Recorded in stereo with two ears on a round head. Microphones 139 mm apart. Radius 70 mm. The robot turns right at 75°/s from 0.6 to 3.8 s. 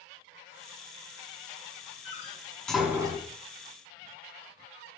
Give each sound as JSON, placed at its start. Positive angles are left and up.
{"t": 2.0, "sound": "a door slam", "side_deg": 50, "distance_m": 5.5}